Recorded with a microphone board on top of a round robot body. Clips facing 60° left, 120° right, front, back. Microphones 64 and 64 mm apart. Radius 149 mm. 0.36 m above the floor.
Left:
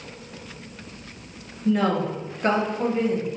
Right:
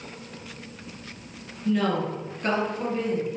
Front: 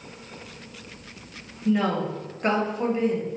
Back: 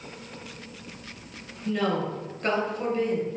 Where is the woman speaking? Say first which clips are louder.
Left 3 dB, front 3 dB; 45° left, 1.3 m.